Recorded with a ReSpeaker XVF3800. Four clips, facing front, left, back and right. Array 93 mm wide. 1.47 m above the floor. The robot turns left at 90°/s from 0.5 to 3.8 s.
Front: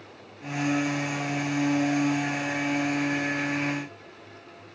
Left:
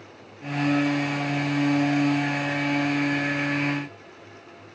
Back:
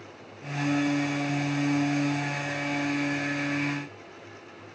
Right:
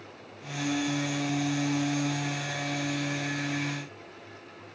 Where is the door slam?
I don't hear a door slam.